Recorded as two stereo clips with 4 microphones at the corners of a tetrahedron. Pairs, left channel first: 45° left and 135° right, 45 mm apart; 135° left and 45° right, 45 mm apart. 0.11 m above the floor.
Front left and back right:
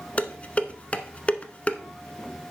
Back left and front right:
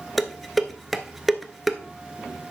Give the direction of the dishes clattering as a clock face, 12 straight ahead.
10 o'clock.